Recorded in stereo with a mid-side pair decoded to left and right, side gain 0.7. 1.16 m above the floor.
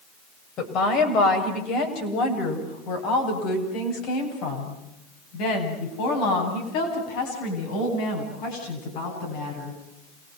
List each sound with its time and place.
0.6 s a woman speaking: 50° left, 7 m; by 9.8 s 70° left, 13 m